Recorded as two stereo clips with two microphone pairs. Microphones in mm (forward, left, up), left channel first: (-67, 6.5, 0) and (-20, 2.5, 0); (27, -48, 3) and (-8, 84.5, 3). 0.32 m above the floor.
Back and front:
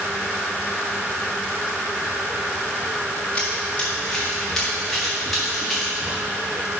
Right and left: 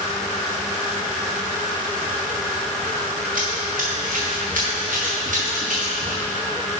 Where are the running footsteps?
110° left, 3.5 m; by 6.2 s 80° left, 5 m.